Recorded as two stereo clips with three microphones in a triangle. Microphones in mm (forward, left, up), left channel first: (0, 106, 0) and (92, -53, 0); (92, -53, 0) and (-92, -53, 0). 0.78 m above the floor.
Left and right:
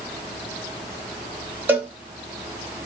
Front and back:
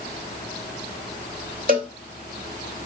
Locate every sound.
1.7 s a cowbell: 140° right, 1.1 m